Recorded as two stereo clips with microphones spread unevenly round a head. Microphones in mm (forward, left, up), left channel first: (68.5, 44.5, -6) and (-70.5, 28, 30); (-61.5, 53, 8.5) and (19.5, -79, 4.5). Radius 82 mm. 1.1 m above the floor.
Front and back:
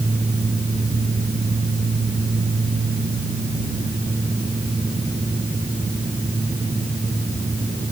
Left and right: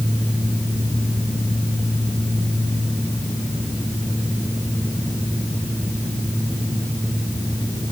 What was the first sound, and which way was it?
Only background noise.